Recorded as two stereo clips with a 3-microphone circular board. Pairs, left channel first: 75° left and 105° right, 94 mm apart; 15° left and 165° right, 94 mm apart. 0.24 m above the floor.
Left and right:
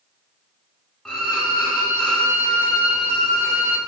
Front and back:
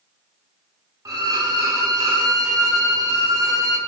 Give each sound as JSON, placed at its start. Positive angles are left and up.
{"t": 1.1, "sound": "a violin", "azimuth_deg": 155, "distance_m": 0.5}